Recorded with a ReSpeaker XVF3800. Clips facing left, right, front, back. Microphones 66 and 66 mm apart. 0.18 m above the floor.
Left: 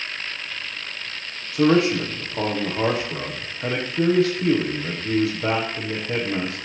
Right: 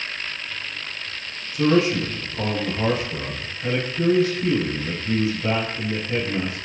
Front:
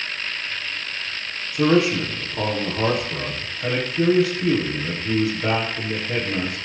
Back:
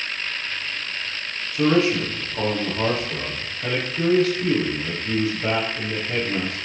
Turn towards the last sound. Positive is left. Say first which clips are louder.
# left 1 dB, front 1 dB
turn(degrees=85)